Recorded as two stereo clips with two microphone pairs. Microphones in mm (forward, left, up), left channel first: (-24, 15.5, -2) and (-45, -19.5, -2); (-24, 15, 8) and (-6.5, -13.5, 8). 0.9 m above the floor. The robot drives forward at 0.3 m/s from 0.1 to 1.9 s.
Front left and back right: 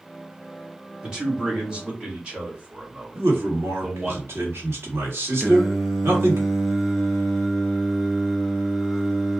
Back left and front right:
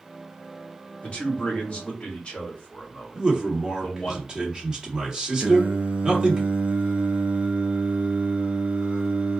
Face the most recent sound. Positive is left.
turn(degrees=-35)